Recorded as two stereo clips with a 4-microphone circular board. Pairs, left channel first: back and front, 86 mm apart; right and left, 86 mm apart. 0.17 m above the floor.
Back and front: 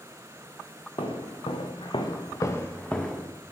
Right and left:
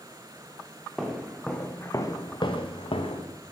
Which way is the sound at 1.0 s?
175° left.